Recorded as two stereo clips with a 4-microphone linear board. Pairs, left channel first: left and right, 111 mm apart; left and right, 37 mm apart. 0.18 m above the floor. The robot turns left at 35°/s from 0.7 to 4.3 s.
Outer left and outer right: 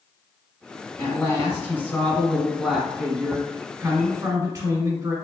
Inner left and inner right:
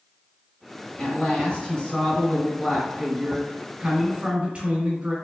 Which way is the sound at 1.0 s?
60° left.